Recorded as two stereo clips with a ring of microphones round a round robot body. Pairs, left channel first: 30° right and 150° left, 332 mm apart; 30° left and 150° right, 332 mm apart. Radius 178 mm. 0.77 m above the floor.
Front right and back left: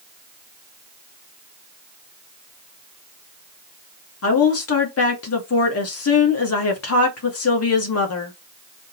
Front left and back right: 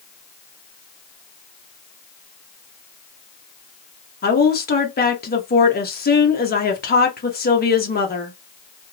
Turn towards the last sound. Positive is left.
turn(degrees=-20)